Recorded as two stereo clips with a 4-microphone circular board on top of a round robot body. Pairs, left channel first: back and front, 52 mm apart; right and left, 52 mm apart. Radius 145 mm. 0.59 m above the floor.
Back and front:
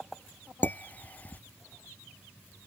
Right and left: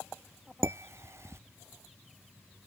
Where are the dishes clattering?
120° left.